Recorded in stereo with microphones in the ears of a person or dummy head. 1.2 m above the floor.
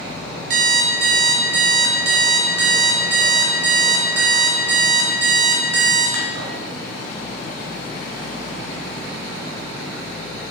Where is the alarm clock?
75° right (ahead or behind), 2.5 m.